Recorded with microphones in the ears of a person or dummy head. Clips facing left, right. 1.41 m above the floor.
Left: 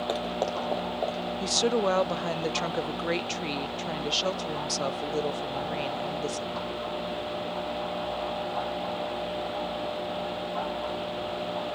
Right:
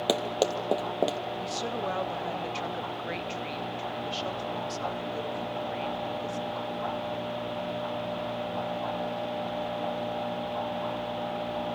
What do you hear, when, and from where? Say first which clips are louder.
0.1 s running footsteps: right 4 dB; 40° right (ahead or behind), 2 m; by 1.2 s 50° right (ahead or behind), 2 m
1.4 s a woman speaking: left 11 dB; 55° left (ahead or behind), 0.6 m